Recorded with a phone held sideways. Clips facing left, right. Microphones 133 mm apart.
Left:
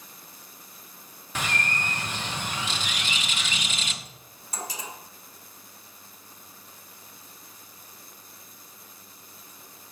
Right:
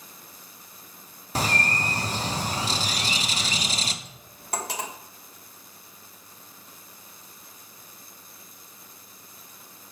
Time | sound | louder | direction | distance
1.4 | a bird | right 4 dB | 35° right (ahead or behind) | 0.8 m
4.0 | cutlery clinking | right 9 dB | 65° right (ahead or behind) | 1.1 m